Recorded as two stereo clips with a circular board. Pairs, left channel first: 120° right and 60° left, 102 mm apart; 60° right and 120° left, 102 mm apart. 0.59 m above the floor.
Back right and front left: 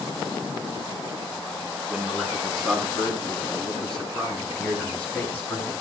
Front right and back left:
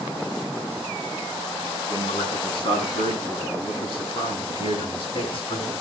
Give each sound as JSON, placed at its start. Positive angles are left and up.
{"t": 1.9, "sound": "a man speaking", "azimuth_deg": -25, "distance_m": 6.5}